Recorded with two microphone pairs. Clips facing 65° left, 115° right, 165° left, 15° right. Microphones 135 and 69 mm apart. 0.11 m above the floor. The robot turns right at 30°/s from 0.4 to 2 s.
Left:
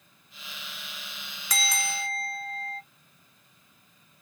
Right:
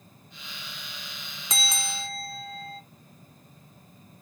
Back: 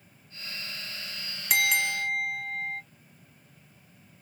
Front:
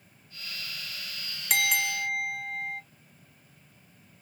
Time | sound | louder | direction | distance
1.5 | a bell | left 2 dB, back 1 dB | 110° right | 0.7 m